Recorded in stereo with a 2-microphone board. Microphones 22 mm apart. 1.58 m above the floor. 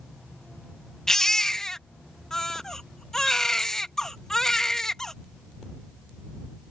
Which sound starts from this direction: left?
A baby crying, at 1.1 s.